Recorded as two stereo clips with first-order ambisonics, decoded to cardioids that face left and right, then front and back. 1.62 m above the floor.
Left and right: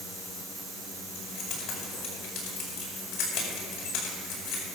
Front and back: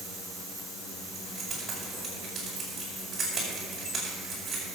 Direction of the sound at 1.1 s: 105° left.